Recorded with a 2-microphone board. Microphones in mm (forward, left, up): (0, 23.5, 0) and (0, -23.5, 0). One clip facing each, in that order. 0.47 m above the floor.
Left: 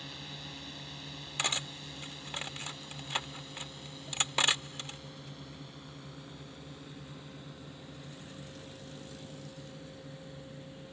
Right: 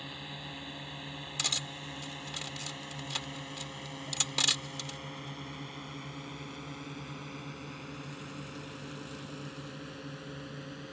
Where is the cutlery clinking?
25° left (ahead or behind).